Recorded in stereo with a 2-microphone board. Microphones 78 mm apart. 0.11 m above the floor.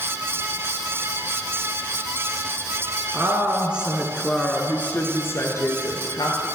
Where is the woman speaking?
30° right (ahead or behind), 1.2 m; by 6.5 s 55° left (ahead or behind), 1.8 m.